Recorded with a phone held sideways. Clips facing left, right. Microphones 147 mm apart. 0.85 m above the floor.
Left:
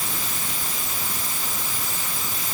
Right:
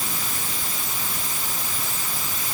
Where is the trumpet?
I don't hear a trumpet.